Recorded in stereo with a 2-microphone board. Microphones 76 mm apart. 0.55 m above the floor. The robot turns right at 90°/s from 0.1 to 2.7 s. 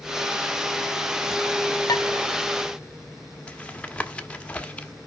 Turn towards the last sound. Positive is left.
turn(degrees=15)  # may be behind; listen again after turning